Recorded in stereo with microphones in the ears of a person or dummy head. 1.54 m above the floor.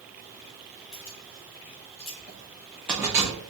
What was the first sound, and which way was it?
Keys jangling, 50° left (ahead or behind).